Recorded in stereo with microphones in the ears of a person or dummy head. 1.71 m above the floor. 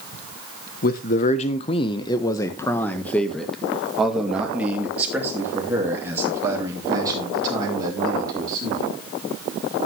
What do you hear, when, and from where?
0.8 s a man speaking: 50° left (ahead or behind), 1.2 m; by 8.9 s 25° right (ahead or behind), 4.5 m